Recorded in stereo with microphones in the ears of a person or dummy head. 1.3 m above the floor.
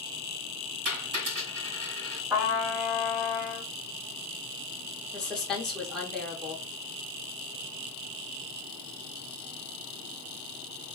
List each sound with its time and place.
0.8 s a dropped coin: 55° right (ahead or behind), 1.4 m
2.3 s a trumpet: 15° right (ahead or behind), 1.4 m
5.1 s a woman speaking: 5° left (ahead or behind), 0.8 m